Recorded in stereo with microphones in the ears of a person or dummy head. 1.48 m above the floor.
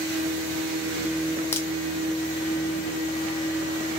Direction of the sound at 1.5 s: 15° left (ahead or behind).